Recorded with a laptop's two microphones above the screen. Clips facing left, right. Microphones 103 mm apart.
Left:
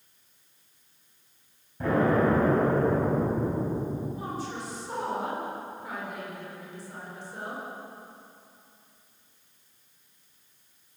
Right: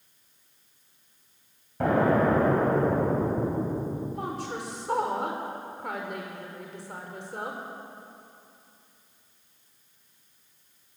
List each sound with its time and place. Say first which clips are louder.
1.8 s an explosion: right 1 dB; 80° right, 4.5 m
4.1 s a woman speaking: right 2 dB; 80° right, 4.5 m